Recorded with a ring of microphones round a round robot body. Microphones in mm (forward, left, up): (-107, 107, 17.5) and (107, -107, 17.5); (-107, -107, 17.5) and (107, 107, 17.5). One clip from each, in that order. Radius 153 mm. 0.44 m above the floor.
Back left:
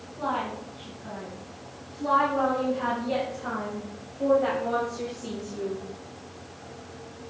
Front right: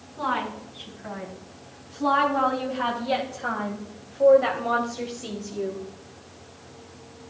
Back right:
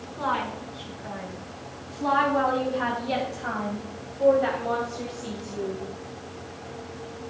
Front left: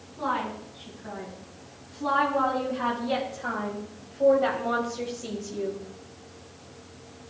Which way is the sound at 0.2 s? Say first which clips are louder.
Front right 2 dB, back right 1 dB; 80° right.